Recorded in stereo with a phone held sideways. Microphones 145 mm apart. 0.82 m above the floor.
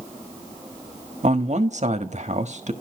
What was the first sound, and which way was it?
A man speaking, 55° right (ahead or behind).